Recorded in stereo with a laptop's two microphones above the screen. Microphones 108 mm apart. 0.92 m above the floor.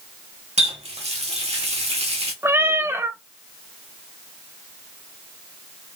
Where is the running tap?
80° right, 1.1 m.